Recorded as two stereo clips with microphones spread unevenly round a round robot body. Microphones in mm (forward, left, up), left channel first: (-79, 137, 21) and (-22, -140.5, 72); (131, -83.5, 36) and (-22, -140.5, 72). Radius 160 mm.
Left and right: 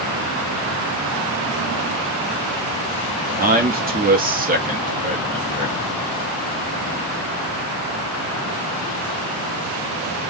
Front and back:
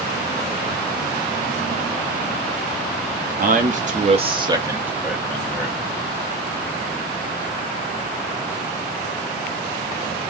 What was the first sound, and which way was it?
A man speaking, 140° right.